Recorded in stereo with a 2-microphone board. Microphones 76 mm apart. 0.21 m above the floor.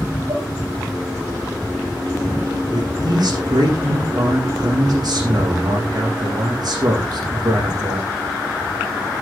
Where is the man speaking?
60° right (ahead or behind), 9 m.